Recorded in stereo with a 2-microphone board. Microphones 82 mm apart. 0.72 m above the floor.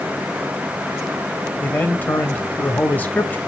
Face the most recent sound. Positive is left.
turn(degrees=20)  # may be behind; listen again after turning